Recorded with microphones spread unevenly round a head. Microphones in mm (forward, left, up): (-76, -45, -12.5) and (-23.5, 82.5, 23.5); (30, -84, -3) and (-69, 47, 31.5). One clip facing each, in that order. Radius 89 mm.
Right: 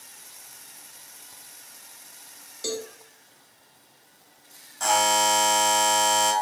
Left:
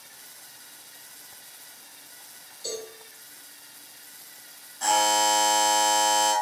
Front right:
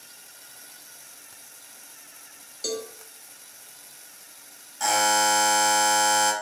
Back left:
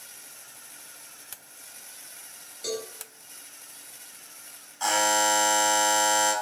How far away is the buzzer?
About 3.5 m.